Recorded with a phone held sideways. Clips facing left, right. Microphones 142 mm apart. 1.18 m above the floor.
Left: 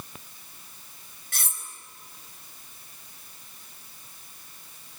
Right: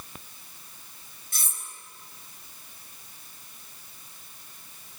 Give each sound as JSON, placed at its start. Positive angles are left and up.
{"t": 1.3, "sound": "cutlery clinking", "side_deg": 80, "distance_m": 4.5}